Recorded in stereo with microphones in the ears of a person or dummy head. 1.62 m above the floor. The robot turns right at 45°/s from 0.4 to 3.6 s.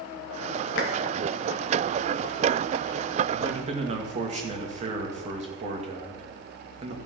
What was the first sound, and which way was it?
A clap, 75° left (ahead or behind).